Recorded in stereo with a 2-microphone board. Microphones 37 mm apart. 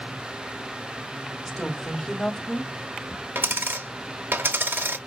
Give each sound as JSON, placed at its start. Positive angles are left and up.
{"t": 1.4, "sound": "a woman speaking", "side_deg": 5, "distance_m": 2.5}
{"t": 3.4, "sound": "a dropped coin", "side_deg": -75, "distance_m": 0.7}